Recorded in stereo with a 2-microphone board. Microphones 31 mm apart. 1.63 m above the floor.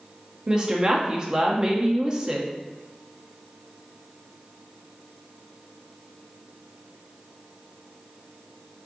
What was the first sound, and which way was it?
A woman speaking, 30° right (ahead or behind).